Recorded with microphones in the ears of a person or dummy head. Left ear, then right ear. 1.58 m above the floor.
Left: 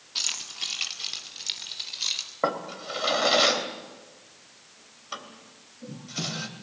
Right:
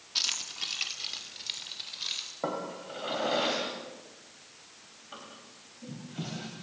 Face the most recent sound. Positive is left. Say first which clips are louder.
# left 8 dB
turn(degrees=65)  # may be behind; listen again after turning